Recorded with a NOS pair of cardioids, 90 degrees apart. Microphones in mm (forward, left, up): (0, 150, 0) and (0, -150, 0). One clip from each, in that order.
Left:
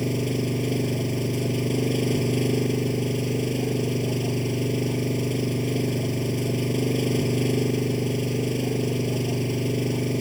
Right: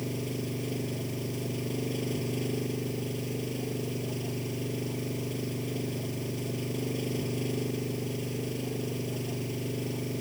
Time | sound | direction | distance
0.0 | an engine running | 60° left | ?